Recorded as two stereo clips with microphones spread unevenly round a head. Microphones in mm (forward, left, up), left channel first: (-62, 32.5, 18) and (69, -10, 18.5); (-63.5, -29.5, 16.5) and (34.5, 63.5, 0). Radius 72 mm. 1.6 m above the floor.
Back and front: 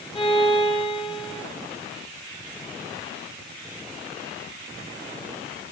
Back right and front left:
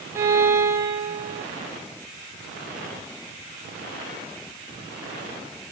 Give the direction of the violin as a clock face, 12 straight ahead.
8 o'clock.